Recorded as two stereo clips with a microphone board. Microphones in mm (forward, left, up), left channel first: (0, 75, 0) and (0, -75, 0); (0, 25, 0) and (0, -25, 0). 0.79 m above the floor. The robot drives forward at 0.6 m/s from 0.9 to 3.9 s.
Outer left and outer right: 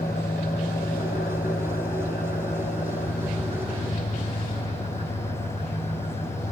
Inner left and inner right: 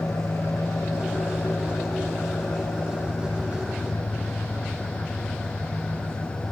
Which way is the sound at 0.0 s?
85° left.